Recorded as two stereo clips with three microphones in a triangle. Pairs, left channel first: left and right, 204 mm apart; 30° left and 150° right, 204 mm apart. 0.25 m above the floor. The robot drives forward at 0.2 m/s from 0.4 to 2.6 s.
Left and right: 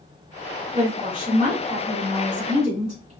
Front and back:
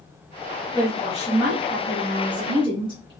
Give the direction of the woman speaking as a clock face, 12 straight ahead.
3 o'clock.